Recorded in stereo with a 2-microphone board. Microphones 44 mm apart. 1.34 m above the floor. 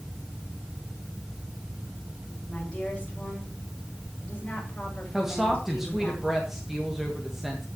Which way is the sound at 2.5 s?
30° left (ahead or behind).